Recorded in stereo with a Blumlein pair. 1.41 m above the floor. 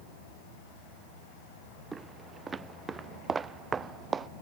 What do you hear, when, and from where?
1.9 s footsteps: 10° right; by 4.3 s 15° right